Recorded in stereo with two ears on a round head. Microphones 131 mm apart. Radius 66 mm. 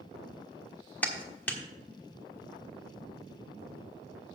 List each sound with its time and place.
1.0 s a clap: 10° left (ahead or behind), 1.3 m